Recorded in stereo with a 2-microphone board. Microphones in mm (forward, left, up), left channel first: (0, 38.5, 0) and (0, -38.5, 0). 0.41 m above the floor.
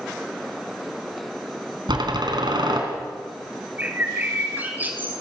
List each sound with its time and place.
1.9 s a door slam: 70° right (ahead or behind), 3.5 m
3.8 s a bird: 25° right (ahead or behind), 3.5 m